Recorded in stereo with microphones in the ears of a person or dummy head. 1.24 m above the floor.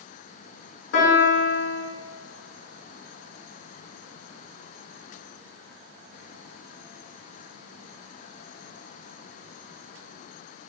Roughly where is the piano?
Left.